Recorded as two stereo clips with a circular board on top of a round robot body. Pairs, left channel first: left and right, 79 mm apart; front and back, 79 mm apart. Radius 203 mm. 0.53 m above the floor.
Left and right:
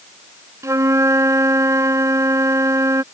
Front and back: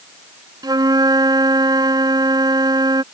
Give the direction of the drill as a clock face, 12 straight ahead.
I don't hear a drill.